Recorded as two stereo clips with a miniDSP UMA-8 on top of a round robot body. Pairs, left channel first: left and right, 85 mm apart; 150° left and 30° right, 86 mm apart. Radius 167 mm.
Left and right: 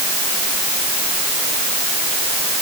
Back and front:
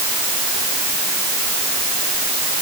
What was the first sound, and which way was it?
Only background noise.